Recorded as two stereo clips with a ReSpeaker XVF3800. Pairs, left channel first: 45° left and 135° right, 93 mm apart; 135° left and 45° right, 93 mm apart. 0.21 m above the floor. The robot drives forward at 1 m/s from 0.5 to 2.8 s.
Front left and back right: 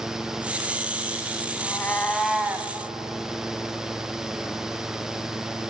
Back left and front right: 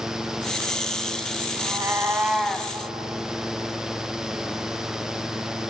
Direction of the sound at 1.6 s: 10° right.